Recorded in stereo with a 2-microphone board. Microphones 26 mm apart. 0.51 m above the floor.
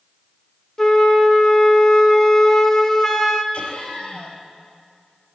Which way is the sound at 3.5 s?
45° left (ahead or behind).